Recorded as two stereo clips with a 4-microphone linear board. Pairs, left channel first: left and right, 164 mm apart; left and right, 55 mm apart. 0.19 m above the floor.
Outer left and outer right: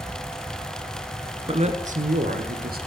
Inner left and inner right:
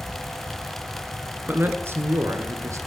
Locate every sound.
1.5 s a man speaking: 35° right (ahead or behind), 2 m; by 2.8 s 65° right (ahead or behind), 3 m